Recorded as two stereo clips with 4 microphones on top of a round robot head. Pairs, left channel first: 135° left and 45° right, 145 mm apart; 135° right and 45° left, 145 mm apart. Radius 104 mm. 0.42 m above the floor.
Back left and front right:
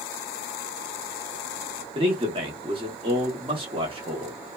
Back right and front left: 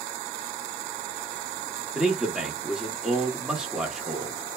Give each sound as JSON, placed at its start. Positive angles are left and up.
{"t": 1.9, "sound": "a man speaking", "azimuth_deg": -40, "distance_m": 0.9}